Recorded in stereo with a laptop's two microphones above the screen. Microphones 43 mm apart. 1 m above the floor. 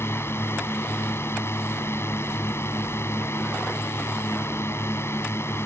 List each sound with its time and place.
0.0 s a drone: 75° left (ahead or behind); by 5.7 s 80° left